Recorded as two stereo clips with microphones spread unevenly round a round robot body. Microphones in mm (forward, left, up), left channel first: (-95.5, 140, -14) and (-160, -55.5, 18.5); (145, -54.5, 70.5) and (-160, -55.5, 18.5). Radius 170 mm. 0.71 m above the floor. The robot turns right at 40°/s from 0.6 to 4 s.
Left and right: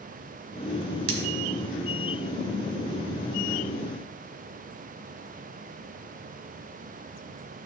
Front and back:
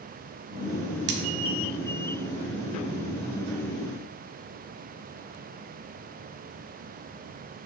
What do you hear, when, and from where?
1.1 s cutlery clinking: 130° right, 1.1 m; by 1.2 s 125° right, 1.1 m